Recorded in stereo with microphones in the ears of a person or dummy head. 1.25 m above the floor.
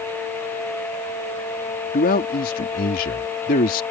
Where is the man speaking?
45° left (ahead or behind).